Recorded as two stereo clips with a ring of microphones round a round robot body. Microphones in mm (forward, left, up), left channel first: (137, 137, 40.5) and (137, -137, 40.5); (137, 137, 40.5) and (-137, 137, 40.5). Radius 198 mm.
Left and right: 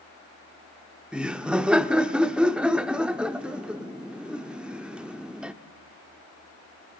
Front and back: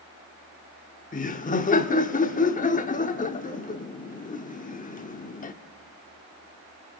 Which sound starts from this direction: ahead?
Laughter, at 1.1 s.